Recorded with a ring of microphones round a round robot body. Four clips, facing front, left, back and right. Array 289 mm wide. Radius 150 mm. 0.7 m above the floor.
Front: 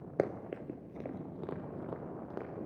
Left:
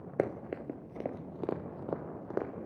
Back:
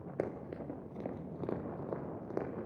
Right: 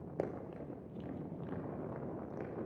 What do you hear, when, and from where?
0.2 s running footsteps: 55° left, 0.8 m; by 2.6 s 100° left, 2.5 m